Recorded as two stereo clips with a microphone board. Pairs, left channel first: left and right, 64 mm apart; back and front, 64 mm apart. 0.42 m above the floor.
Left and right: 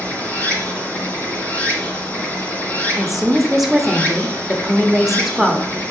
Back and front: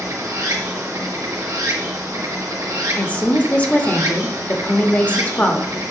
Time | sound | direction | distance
0.0 | running water | 25° left | 1.9 m
3.0 | a woman speaking | 170° right | 0.8 m